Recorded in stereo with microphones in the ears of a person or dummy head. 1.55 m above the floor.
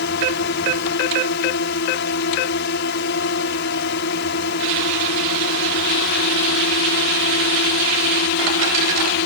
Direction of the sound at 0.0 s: 60° left (ahead or behind).